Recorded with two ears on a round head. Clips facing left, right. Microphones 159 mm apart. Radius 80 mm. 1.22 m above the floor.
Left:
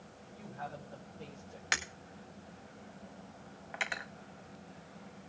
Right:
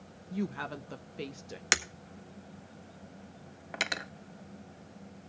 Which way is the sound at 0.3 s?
85° right.